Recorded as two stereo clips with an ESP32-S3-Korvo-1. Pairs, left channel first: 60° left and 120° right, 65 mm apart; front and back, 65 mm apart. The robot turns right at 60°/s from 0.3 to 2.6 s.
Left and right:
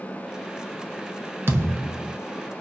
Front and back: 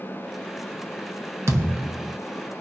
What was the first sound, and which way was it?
A thud, 160° right.